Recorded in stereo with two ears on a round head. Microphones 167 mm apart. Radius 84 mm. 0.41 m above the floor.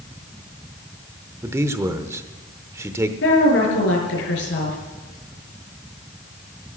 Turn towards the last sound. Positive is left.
turn(degrees=70)  # may be behind; listen again after turning